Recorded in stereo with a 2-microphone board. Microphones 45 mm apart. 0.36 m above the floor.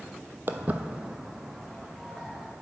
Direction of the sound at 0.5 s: 50° right (ahead or behind).